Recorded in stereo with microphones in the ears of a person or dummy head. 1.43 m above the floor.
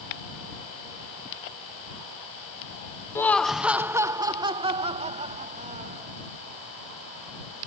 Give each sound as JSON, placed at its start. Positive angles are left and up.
{"t": 3.1, "sound": "laughter", "side_deg": 15}